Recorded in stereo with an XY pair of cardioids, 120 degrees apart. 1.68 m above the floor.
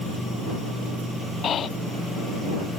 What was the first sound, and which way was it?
Breathing, 50° left.